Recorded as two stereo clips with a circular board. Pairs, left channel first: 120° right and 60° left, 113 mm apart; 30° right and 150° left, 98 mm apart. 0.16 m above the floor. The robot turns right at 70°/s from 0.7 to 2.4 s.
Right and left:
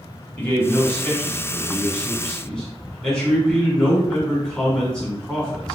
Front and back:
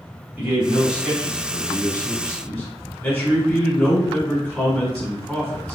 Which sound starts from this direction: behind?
A man speaking, at 0.4 s.